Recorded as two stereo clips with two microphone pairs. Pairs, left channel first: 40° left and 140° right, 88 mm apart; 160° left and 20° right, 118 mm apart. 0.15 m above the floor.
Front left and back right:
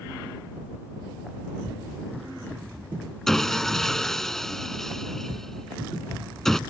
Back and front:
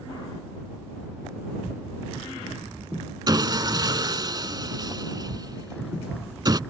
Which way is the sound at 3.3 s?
40° right.